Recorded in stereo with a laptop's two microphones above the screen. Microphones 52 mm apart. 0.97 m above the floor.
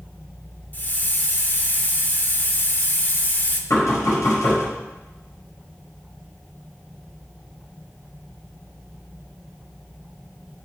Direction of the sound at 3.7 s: 80° left.